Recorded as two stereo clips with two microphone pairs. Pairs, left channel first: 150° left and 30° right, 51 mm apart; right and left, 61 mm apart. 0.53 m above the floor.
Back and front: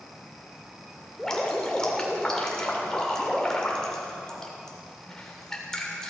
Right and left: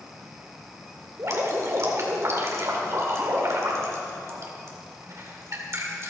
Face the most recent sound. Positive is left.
turn(degrees=75)